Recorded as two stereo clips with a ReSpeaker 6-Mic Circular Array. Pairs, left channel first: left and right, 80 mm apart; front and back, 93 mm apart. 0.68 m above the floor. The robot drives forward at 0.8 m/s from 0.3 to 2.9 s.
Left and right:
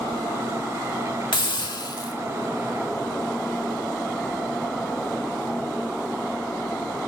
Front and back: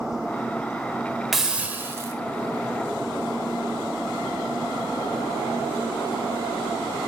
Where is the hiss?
90° left, 1.0 m; by 2.1 s 125° left, 1.2 m.